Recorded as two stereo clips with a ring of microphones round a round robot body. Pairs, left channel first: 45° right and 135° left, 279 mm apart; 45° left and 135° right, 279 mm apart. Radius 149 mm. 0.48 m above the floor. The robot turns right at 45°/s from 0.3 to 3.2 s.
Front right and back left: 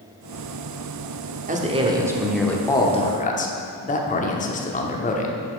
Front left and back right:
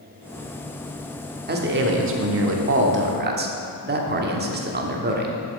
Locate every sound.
1.5 s a man speaking: 175° right, 1.1 m; by 5.6 s 95° right, 1.1 m